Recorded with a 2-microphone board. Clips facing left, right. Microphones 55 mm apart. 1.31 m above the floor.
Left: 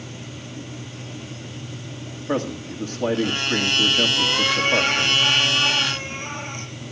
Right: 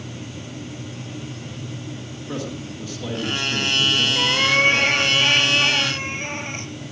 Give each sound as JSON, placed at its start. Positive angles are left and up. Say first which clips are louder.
{"t": 2.3, "sound": "a man speaking", "louder": "left 5 dB", "side_deg": 40, "distance_m": 1.9}
{"t": 4.2, "sound": "a cat meowing", "louder": "right 3 dB", "side_deg": -45, "distance_m": 4.5}